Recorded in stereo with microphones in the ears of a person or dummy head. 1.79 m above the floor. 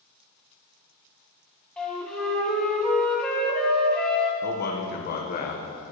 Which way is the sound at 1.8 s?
5° left (ahead or behind).